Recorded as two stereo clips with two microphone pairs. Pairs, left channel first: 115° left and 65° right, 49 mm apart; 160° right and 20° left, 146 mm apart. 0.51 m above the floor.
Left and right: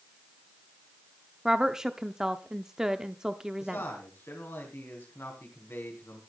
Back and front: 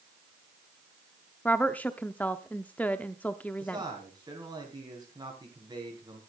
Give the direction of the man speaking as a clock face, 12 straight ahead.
9 o'clock.